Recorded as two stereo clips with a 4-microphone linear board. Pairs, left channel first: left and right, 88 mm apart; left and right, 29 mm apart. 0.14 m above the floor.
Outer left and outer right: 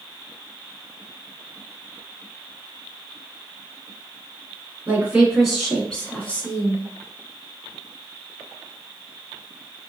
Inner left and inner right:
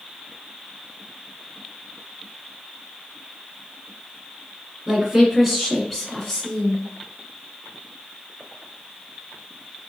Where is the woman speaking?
20° right (ahead or behind), 1.4 m; by 6.8 s 25° left (ahead or behind), 1.6 m.